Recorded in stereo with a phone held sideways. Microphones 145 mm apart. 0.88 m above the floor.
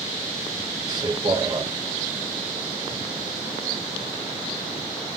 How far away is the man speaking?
About 2.5 m.